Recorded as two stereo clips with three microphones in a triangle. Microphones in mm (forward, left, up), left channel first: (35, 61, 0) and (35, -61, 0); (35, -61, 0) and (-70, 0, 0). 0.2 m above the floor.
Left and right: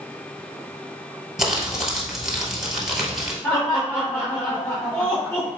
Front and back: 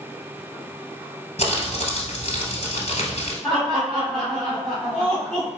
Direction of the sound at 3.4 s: 55° left.